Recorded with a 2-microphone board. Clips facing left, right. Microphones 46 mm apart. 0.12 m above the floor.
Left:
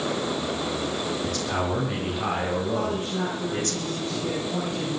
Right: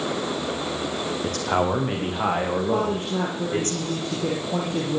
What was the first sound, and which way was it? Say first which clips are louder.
A man speaking: right 7 dB; 50° right (ahead or behind).